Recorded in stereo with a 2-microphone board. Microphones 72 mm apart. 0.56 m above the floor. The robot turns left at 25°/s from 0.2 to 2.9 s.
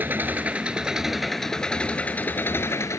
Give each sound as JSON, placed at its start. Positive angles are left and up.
{"t": 0.0, "sound": "an engine running", "azimuth_deg": -155}